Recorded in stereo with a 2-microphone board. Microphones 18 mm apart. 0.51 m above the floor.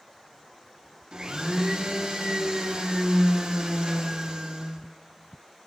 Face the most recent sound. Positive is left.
turn(degrees=-45)  # may be behind; listen again after turning